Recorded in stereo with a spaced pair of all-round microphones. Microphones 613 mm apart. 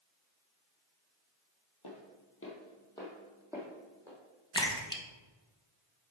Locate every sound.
1.8 s footsteps: 40° left (ahead or behind), 2 m; by 4.2 s 15° right (ahead or behind), 4 m
4.5 s a splash: 5° left (ahead or behind), 1.1 m